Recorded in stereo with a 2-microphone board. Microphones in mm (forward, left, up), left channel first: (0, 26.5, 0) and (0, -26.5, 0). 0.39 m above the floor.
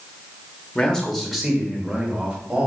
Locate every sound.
0.8 s a man speaking: 20° left (ahead or behind), 1.0 m; by 2.7 s 20° right (ahead or behind), 1.8 m